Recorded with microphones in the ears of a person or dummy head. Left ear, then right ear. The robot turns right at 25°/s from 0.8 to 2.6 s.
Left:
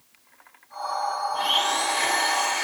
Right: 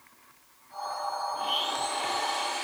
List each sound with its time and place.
1.3 s a blender: 95° left, 2.5 m; by 2.6 s 130° left, 2.5 m